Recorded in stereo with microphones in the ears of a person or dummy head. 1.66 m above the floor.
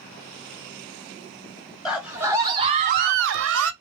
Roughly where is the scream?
Centre.